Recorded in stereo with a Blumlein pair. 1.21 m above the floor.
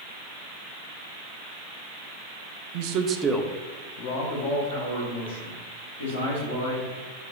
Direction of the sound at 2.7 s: 50° right.